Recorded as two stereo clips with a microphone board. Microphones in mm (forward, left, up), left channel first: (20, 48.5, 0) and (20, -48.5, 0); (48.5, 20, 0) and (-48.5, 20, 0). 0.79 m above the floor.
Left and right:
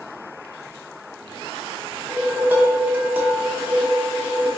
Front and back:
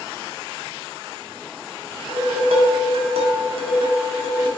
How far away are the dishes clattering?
About 0.8 m.